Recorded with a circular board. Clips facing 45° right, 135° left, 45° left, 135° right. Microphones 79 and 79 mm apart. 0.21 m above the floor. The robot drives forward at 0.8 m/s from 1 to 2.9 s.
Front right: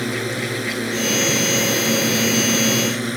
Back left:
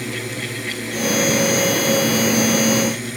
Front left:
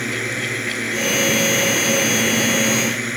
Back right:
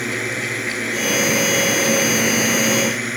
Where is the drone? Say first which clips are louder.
Front right 4 dB, even; 45° right.